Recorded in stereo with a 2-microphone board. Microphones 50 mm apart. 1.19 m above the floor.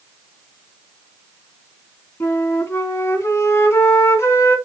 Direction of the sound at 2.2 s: 60° left (ahead or behind).